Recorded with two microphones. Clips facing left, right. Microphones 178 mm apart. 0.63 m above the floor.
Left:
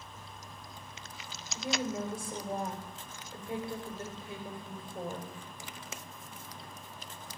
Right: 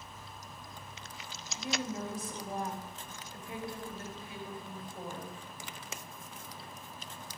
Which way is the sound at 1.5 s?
30° left (ahead or behind).